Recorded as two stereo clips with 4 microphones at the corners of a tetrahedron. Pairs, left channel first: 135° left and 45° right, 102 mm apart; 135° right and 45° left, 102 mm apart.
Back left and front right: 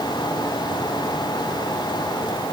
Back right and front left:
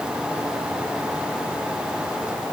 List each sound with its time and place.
Only background noise.